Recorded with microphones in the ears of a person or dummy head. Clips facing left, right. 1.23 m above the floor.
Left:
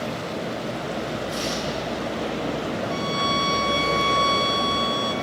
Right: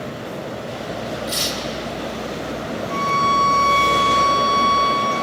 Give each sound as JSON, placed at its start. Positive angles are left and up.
{"t": 1.3, "sound": "tearing paper", "side_deg": -80, "distance_m": 3.5}
{"t": 2.9, "sound": "a violin", "side_deg": 50, "distance_m": 2.0}